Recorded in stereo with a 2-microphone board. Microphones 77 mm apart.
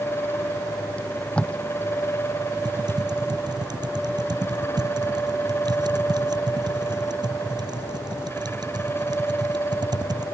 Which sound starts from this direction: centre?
Tape being pulled, at 1.0 s.